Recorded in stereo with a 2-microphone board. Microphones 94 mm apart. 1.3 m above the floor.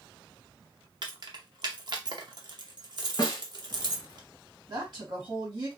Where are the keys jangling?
50° right (ahead or behind), 0.7 m.